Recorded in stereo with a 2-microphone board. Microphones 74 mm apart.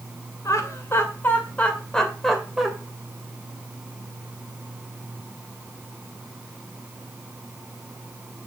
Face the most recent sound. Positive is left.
turn(degrees=-5)  # may be behind; listen again after turning